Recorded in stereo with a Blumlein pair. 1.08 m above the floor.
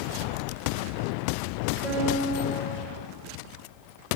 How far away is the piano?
About 4 m.